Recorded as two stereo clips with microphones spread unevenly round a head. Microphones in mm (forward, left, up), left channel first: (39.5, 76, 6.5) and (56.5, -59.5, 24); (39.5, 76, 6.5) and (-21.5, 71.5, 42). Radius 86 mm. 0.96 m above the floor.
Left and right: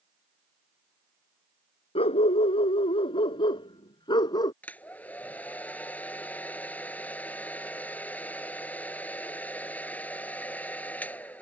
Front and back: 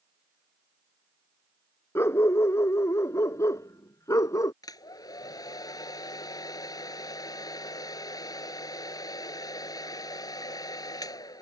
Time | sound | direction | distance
1.9 | a dog barking | 50° left | ?
4.6 | a hair dryer | 20° left | ?